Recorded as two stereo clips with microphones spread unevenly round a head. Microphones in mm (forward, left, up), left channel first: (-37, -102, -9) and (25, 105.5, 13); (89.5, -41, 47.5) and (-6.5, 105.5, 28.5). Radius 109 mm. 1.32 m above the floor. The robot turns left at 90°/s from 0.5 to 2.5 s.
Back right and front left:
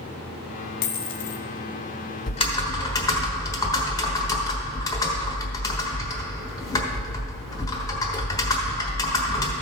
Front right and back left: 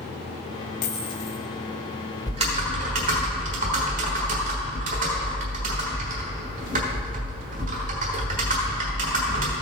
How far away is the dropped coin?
About 0.7 m.